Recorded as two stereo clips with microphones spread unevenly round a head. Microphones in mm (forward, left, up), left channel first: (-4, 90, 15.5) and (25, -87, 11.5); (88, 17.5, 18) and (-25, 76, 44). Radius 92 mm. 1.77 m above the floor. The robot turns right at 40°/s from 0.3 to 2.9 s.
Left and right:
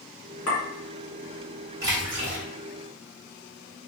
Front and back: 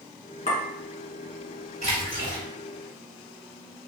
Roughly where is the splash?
Behind right.